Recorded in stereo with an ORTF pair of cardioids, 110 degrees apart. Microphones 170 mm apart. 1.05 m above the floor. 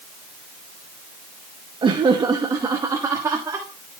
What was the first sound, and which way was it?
Laughter, 30° right.